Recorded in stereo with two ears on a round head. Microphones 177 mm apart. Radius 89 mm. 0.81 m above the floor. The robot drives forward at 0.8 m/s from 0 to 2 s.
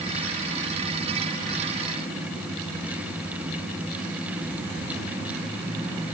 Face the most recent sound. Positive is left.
No sound to turn to.